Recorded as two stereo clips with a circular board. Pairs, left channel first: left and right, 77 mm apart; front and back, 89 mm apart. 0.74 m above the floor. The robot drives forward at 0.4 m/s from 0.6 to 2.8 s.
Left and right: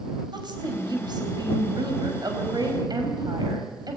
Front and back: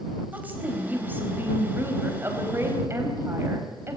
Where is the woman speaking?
110° right, 4 m; by 4.0 s 120° right, 4.5 m.